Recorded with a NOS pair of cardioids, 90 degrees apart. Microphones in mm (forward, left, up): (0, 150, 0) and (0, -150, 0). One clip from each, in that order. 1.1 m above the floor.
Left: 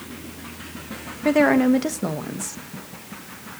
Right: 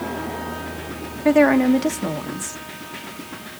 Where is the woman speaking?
Straight ahead, 0.8 m.